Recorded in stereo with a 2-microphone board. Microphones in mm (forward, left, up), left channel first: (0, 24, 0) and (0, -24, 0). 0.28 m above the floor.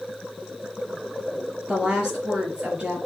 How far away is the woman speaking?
About 4.5 m.